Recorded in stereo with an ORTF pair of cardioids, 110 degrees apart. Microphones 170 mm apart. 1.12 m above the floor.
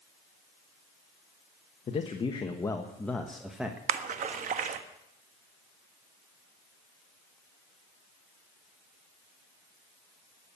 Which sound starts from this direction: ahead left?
A man speaking, at 1.9 s.